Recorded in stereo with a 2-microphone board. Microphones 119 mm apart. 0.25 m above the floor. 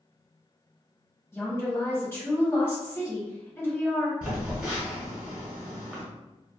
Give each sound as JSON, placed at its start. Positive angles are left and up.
{"t": 1.3, "sound": "a woman speaking", "side_deg": 20, "distance_m": 1.1}
{"t": 4.2, "sound": "a phone buzzing", "side_deg": -10, "distance_m": 1.1}